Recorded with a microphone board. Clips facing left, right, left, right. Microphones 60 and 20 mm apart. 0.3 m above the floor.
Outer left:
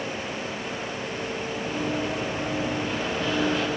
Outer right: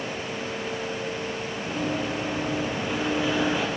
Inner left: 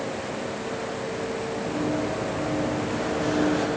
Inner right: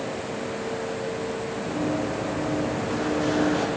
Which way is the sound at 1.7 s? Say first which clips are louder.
Even, even; 5° right (ahead or behind).